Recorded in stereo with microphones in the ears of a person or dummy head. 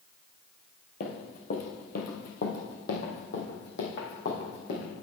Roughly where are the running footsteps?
Left.